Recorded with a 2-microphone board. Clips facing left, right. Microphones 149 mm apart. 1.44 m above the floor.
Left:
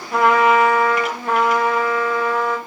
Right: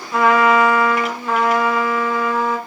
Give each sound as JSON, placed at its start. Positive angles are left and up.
{"t": 0.1, "sound": "a trumpet", "side_deg": 55, "distance_m": 1.7}